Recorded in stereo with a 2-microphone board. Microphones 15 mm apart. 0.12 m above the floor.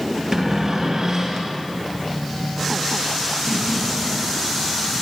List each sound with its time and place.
0.3 s a cupboard door: 40° right (ahead or behind), 2.5 m